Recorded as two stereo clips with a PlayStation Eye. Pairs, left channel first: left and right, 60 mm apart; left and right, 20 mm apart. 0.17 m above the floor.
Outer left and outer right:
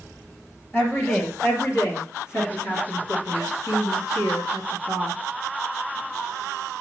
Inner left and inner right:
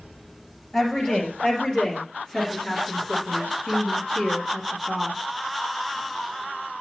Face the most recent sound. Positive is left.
turn(degrees=70)  # may be behind; listen again after turning